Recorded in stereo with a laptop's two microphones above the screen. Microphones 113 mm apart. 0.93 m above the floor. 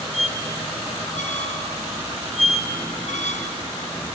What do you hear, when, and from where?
0.1 s a squeak: 90° left, 1.6 m